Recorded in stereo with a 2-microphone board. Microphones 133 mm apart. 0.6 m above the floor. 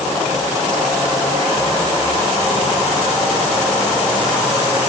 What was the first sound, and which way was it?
Only background noise.